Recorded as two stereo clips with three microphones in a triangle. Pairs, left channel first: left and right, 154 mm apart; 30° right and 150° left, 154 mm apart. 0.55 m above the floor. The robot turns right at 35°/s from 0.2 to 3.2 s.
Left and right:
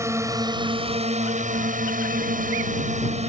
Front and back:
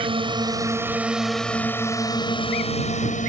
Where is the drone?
160° right; by 3.3 s 55° right.